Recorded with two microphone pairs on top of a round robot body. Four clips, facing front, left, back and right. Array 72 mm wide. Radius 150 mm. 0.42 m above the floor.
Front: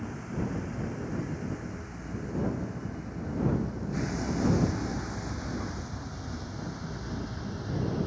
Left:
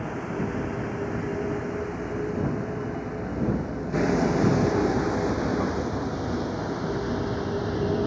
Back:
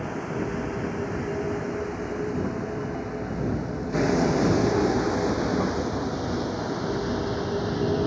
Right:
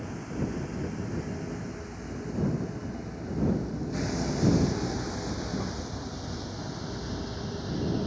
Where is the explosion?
No explosion in this recording.